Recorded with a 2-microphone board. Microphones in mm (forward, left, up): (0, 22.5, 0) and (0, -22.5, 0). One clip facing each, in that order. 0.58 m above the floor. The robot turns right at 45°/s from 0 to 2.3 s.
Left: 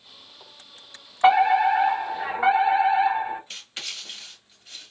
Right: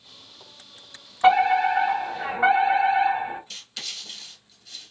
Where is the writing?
30° left (ahead or behind), 1.0 m.